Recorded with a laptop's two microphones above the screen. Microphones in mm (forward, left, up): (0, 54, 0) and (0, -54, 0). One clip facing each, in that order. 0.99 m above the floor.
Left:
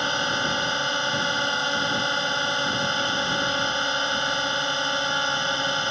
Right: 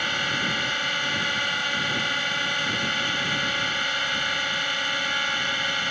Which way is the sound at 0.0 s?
25° left (ahead or behind).